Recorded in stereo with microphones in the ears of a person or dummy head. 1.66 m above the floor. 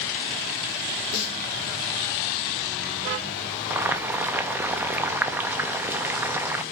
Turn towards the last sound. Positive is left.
turn(degrees=-5)  # may be behind; listen again after turning